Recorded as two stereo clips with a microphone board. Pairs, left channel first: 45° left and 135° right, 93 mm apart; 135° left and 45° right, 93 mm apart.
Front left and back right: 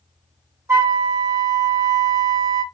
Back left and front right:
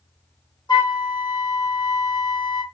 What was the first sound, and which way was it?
A flute, 170° left.